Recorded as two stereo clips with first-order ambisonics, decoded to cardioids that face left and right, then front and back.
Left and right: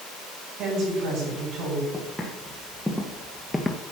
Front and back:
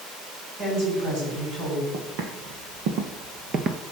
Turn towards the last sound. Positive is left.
turn(degrees=155)